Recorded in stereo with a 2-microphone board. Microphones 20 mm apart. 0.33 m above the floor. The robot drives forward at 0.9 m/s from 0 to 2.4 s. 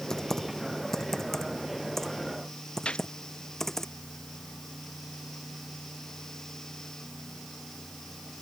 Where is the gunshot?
85° left.